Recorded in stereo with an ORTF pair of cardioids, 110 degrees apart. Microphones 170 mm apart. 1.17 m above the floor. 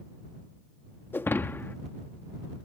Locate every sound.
1.1 s breaking glass: 10° left